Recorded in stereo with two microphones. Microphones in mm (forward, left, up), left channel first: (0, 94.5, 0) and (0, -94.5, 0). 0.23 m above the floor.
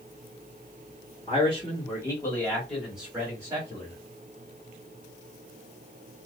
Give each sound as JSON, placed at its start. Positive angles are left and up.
{"t": 1.3, "sound": "a man speaking", "side_deg": 30, "distance_m": 1.9}